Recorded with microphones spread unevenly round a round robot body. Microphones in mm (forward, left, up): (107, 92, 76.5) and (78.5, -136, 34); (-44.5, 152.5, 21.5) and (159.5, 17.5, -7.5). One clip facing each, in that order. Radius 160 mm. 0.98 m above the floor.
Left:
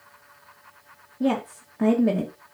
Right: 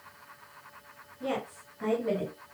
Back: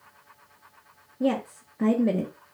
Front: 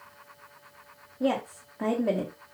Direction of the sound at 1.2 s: 85° left.